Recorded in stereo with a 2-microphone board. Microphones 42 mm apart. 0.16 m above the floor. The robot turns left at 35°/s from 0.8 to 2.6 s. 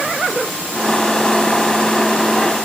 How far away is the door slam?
I don't hear a door slam.